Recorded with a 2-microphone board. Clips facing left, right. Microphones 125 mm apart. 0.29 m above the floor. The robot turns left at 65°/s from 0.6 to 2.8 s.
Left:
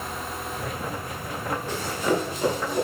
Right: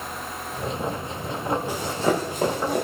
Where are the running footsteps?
10° right (ahead or behind), 6.5 m; by 2.9 s 75° right (ahead or behind), 6.5 m.